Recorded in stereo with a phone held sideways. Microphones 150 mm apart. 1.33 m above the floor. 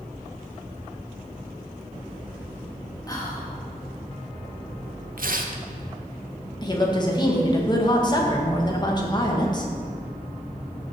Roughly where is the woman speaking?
Left.